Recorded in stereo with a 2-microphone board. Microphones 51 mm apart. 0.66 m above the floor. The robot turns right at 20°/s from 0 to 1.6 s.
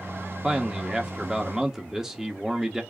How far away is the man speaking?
About 0.9 m.